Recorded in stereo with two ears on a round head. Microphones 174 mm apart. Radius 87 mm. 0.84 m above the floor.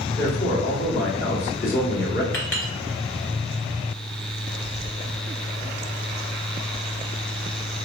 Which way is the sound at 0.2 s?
45° left (ahead or behind).